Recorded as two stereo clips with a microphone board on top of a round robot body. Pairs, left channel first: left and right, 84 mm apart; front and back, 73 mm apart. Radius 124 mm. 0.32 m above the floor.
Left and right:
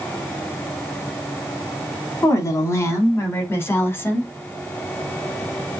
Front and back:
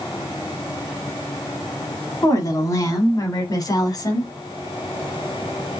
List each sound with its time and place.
2.2 s a woman speaking: 40° left, 4 m; by 4.3 s 25° left, 3.5 m